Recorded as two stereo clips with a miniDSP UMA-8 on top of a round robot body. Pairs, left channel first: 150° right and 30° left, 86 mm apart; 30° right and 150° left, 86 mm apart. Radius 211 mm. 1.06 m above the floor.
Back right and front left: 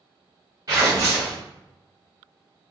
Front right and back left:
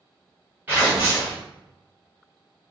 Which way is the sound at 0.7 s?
80° left.